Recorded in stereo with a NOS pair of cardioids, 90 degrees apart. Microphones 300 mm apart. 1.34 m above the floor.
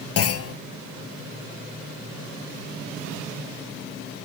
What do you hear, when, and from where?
0.2 s a clunk: 50° left, 1.2 m